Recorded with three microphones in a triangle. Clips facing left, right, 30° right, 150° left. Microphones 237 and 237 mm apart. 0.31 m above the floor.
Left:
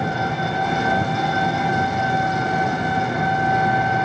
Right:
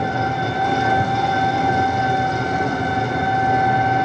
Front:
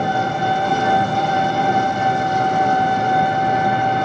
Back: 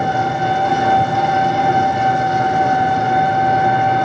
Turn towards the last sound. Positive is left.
turn(degrees=-130)